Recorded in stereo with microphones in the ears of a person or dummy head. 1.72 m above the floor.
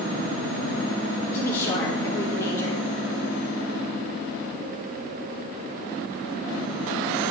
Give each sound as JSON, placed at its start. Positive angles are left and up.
{"t": 1.3, "sound": "a woman speaking", "side_deg": 20, "distance_m": 2.0}